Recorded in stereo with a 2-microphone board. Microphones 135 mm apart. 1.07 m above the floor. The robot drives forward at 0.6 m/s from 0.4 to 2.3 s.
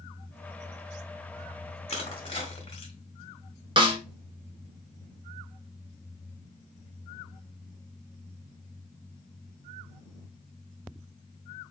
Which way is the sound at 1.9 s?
50° left (ahead or behind).